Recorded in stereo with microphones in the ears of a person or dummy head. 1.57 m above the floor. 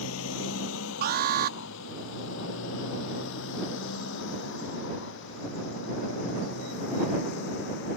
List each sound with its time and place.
0.0 s a motorcycle: 80° left; by 8.0 s 65° left (ahead or behind)
1.0 s an alarm: 55° right (ahead or behind)